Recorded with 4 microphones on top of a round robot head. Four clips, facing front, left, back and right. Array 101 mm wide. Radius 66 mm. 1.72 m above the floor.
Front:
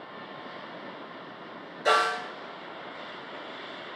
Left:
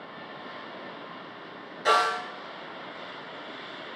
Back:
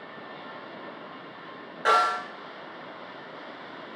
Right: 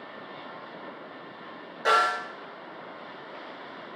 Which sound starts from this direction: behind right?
A snare drum, at 1.9 s.